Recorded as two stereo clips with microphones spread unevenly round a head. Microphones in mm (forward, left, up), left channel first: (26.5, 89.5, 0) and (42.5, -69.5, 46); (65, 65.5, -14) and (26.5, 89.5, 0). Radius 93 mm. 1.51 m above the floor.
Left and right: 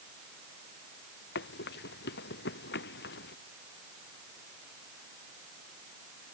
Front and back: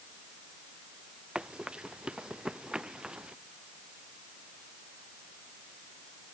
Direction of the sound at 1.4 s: 80° left.